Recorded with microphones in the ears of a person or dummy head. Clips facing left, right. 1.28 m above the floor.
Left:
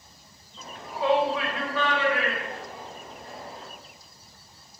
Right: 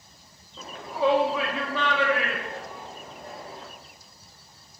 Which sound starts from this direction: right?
A shout, at 0.6 s.